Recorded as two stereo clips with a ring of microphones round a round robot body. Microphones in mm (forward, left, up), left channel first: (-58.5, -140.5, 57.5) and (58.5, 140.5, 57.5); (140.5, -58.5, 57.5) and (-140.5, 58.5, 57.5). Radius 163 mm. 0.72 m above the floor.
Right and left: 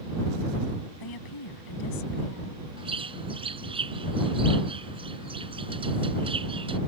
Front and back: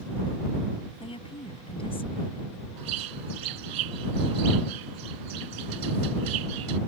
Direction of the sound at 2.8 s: 140° left.